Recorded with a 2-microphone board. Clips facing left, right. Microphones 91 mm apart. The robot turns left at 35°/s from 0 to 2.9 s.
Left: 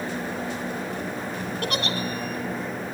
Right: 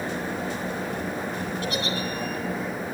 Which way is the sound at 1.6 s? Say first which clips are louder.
Left 2 dB; 70° left (ahead or behind).